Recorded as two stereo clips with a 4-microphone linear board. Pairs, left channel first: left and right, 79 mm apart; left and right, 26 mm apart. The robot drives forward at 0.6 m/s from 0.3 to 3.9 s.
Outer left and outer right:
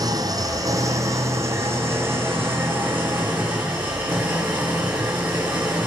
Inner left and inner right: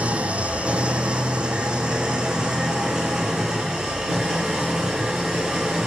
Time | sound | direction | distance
0.0 | an engine running | 50° right (ahead or behind) | 1.8 m